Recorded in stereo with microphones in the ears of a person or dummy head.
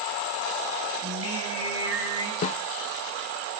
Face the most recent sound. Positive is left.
turn(degrees=45)  # may be behind; listen again after turning